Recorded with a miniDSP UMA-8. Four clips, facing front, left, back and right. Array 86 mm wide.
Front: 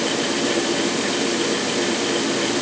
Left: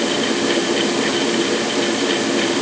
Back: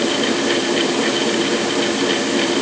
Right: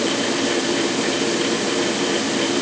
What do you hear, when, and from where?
Only background noise.